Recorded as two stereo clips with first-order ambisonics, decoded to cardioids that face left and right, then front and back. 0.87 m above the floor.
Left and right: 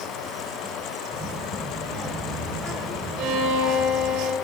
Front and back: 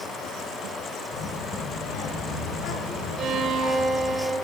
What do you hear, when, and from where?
1.1 s a child speaking: straight ahead, 2 m; by 4.2 s 15° right, 3.5 m
3.2 s a violin: 120° right, 2.5 m